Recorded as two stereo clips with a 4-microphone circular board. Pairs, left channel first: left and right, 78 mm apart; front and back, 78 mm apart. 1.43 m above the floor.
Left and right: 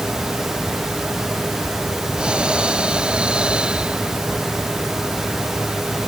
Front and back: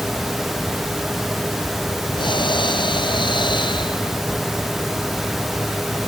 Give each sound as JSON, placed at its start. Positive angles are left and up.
{"t": 2.2, "sound": "breathing", "azimuth_deg": -15}